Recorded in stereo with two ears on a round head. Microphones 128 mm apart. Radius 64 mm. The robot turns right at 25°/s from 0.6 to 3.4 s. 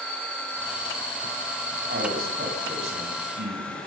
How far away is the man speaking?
About 8 m.